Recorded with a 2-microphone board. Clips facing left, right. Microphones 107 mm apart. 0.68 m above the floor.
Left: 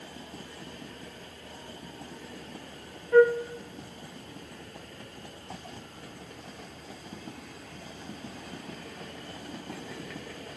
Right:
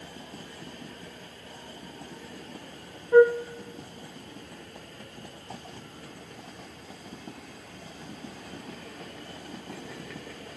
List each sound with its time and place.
3.1 s a flute: 20° right (ahead or behind), 0.8 m